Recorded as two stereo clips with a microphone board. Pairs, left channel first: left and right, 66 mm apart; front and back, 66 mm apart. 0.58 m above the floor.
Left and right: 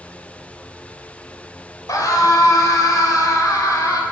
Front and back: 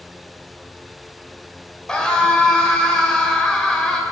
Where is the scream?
80° left, 2.5 m.